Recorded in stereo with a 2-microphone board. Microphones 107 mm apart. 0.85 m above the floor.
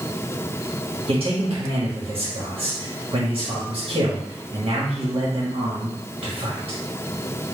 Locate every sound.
1.1 s a man speaking: 60° right (ahead or behind), 1.3 m